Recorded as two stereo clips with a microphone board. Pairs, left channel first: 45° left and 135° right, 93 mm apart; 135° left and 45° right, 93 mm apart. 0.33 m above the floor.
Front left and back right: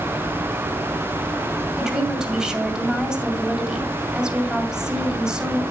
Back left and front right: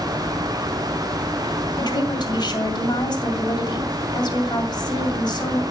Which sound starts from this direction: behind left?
A woman speaking, at 1.8 s.